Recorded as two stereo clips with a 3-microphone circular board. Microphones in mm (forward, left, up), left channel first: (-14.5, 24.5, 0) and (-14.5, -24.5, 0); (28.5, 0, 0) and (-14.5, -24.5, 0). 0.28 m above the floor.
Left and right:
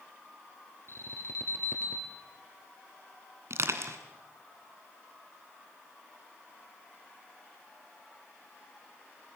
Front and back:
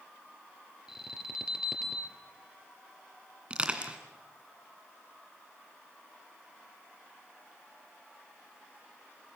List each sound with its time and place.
0.9 s an alarm: 130° left, 3.5 m
3.5 s crushing: 85° right, 2 m